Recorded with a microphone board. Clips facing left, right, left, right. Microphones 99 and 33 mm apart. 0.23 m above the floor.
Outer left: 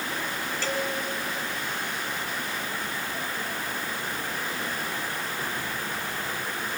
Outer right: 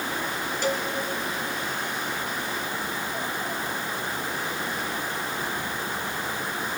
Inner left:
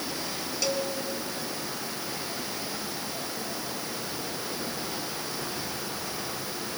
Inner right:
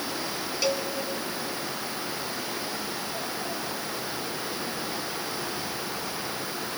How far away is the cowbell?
About 1.8 m.